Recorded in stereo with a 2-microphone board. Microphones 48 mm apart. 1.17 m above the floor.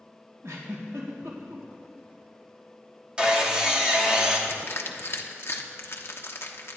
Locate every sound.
0.4 s a giggle: 75° right (ahead or behind), 2.5 m
3.2 s sawing: 15° right (ahead or behind), 1.7 m
4.5 s crushing: 55° left (ahead or behind), 1.0 m